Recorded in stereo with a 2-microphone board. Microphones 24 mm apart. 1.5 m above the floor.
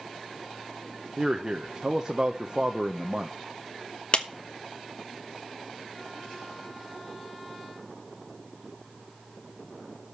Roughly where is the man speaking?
Right.